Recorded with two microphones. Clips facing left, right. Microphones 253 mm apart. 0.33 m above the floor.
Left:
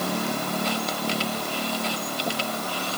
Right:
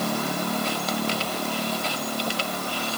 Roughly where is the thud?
No thud in this recording.